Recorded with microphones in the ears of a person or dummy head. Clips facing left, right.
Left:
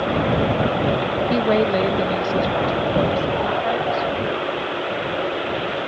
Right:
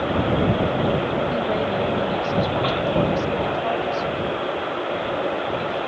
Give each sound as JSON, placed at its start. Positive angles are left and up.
{"t": 1.3, "sound": "a woman speaking", "side_deg": 75}